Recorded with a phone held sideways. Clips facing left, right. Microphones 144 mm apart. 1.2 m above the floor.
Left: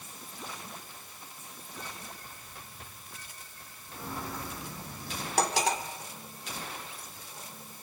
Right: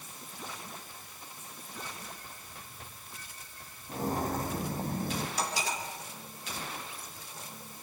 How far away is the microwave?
I don't hear a microwave.